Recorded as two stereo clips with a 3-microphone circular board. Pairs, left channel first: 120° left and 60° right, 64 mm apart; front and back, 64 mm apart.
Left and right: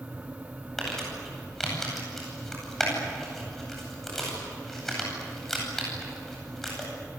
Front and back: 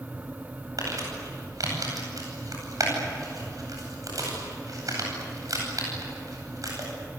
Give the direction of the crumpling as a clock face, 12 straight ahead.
5 o'clock.